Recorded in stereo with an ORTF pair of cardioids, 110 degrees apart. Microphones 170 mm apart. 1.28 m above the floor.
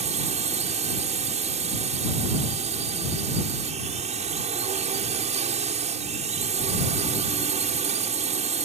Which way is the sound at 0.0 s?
45° right.